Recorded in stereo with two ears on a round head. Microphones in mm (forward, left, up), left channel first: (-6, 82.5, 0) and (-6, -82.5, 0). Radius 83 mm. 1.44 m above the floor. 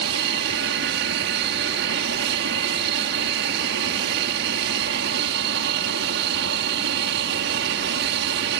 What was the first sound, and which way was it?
An aircraft, 65° right (ahead or behind).